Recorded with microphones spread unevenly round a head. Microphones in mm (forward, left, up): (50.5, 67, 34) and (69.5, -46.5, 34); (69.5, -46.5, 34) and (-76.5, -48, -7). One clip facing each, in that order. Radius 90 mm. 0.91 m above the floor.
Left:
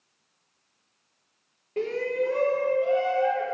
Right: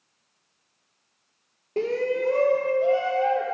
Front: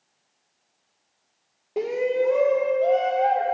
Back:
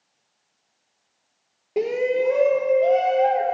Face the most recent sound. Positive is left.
turn(degrees=-125)